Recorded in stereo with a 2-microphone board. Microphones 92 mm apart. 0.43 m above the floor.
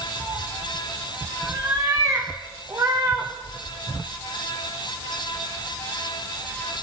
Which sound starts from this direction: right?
A cat meowing, at 0.2 s.